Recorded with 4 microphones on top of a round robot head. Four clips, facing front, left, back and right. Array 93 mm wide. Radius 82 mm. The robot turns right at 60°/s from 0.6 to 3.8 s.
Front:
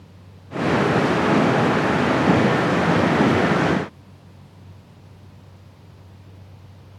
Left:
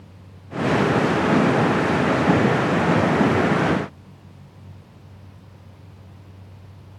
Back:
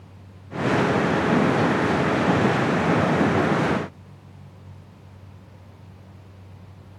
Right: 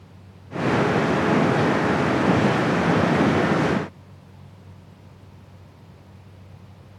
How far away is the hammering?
No hammering in this recording.